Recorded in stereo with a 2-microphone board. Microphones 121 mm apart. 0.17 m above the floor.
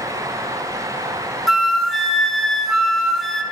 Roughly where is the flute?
Centre.